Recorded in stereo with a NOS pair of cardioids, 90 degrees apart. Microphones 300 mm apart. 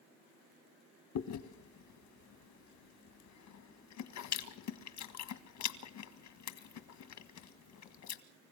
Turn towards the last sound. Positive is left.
turn(degrees=70)